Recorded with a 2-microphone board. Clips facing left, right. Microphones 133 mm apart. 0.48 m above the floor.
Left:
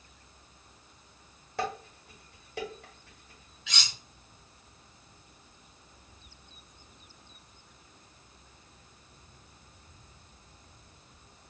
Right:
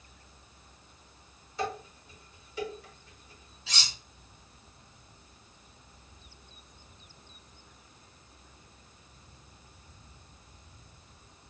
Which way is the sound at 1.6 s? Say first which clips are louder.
Even; 70° left (ahead or behind).